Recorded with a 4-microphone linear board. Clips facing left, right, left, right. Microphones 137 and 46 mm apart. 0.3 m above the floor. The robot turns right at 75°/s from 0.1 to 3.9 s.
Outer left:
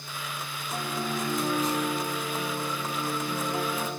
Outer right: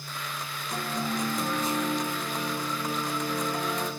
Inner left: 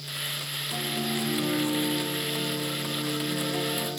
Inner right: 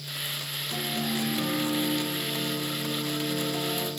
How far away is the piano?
About 5.5 m.